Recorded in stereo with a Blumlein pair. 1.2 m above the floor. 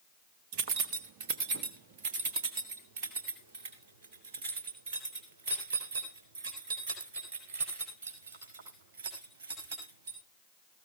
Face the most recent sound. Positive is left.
turn(degrees=-55)